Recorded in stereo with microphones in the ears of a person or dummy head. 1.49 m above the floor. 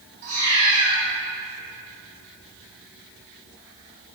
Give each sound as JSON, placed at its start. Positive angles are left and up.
{"t": 0.2, "sound": "a cat meowing", "side_deg": -40, "distance_m": 1.5}